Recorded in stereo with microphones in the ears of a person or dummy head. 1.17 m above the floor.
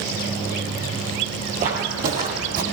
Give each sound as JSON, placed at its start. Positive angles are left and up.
{"t": 1.6, "sound": "footsteps", "side_deg": -35, "distance_m": 1.4}